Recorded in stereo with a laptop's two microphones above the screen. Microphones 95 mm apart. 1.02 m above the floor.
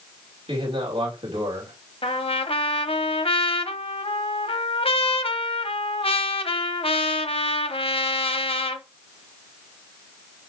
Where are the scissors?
No scissors in this recording.